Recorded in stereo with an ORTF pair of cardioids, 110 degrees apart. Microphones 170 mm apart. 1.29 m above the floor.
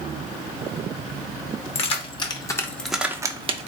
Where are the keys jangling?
40° left, 1.0 m; by 3.7 s 45° right, 0.6 m.